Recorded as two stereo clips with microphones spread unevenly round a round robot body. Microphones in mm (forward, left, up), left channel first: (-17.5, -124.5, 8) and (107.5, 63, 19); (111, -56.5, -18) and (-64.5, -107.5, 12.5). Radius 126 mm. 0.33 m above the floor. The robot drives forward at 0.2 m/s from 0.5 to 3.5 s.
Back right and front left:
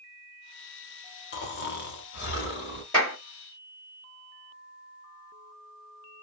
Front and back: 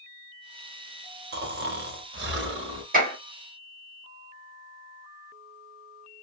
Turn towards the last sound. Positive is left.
turn(degrees=155)